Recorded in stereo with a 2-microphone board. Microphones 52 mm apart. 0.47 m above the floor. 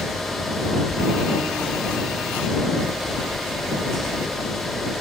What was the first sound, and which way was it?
Only background noise.